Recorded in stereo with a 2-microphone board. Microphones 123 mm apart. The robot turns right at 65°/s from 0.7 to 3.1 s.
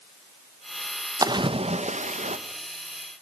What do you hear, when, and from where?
1.2 s a splash: 150° right, 1.0 m; by 2.4 s 75° right, 1.0 m